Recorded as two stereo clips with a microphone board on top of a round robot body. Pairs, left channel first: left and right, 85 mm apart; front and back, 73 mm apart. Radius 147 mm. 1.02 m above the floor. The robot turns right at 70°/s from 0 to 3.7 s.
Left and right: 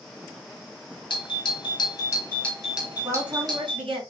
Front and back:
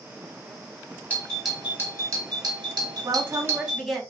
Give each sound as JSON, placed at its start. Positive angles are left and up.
{"t": 1.1, "sound": "a doorbell", "azimuth_deg": 70, "distance_m": 3.0}
{"t": 3.0, "sound": "a woman speaking", "azimuth_deg": -135, "distance_m": 4.0}